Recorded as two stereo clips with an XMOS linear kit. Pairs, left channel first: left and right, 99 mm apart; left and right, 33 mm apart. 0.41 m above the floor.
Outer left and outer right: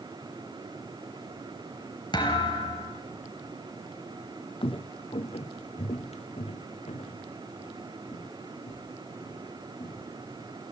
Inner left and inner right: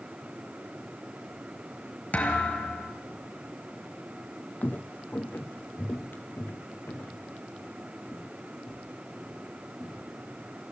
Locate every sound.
2.1 s a thud: 45° left (ahead or behind), 3 m
4.6 s footsteps: 55° left (ahead or behind), 0.7 m; by 10.1 s 80° left, 3.5 m